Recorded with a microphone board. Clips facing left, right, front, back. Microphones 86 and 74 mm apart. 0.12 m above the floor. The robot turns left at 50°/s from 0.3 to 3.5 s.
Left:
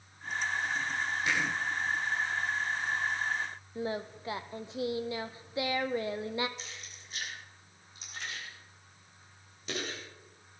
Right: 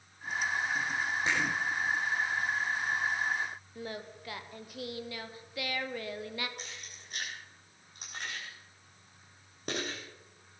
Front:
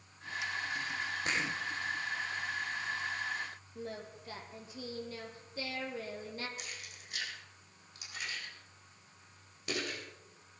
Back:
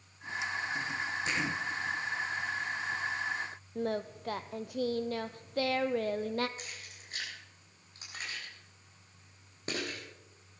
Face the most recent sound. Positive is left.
turn(degrees=-125)